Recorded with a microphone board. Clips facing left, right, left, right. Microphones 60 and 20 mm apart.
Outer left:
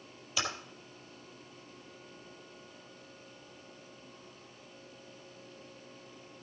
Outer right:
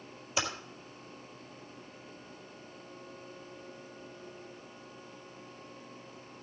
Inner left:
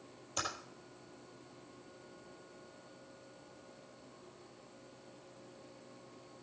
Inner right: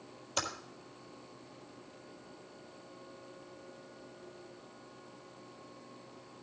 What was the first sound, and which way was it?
Typing on a keyboard, 25° right (ahead or behind).